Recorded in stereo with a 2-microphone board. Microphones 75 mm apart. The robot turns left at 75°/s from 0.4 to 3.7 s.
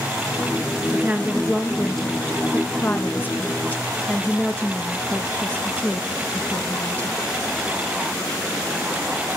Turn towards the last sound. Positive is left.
turn(degrees=20)  # may be behind; listen again after turning